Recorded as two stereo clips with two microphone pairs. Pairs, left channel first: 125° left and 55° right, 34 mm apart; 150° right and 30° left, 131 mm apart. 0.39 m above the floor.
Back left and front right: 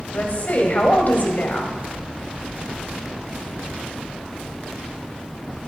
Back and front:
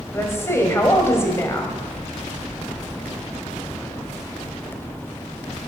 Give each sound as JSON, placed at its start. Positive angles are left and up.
{"t": 0.1, "sound": "a woman speaking", "azimuth_deg": 140, "distance_m": 2.5}